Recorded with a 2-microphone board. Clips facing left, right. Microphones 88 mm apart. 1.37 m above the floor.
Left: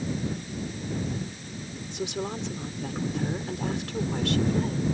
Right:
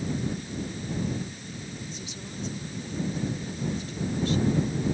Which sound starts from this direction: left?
A woman speaking, at 1.9 s.